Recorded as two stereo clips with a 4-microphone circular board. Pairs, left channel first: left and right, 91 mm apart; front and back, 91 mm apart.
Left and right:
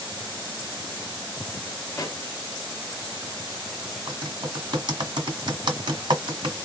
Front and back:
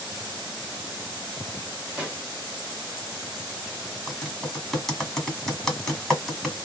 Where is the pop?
110° left, 1.5 m.